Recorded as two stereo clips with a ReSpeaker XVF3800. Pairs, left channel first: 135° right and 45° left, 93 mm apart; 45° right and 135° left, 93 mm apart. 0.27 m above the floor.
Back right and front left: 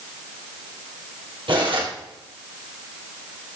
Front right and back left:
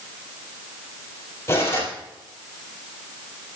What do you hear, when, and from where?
1.5 s cutlery clinking: 15° left, 4.5 m